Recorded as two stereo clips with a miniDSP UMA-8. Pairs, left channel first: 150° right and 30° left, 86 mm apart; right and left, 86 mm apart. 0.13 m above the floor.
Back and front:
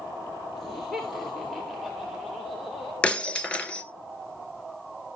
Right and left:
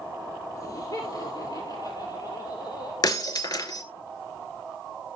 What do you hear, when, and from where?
0.6 s laughter: 60° right, 1.6 m; by 2.9 s 55° right, 3 m
3.0 s breaking glass: 75° right, 1.2 m